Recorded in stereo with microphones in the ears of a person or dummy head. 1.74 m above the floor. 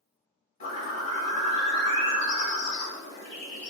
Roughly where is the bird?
Left.